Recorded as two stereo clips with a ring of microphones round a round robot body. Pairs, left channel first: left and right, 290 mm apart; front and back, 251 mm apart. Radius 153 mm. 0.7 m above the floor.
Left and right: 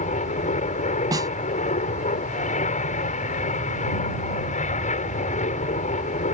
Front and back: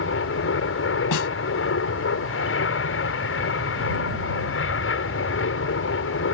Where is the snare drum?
10° right.